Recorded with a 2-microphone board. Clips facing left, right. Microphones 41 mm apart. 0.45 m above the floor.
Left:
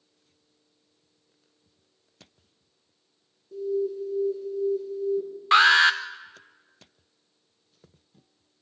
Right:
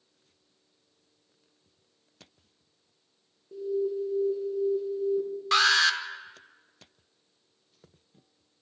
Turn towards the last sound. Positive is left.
turn(degrees=25)  # may be behind; listen again after turning